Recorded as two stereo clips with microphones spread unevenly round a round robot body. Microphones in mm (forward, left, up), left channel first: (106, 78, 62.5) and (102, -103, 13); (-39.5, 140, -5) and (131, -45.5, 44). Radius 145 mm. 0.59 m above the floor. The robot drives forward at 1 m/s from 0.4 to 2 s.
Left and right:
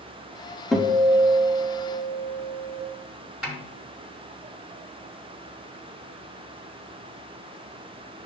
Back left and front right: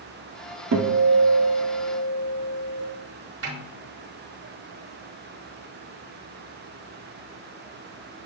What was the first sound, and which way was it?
A guitar, 15° right.